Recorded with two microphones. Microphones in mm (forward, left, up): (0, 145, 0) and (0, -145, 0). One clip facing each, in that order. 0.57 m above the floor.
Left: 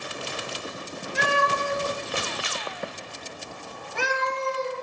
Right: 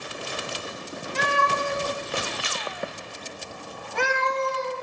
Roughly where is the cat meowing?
Centre.